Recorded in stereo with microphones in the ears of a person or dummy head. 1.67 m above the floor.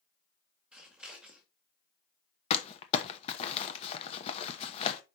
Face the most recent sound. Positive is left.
turn(degrees=35)  # may be behind; listen again after turning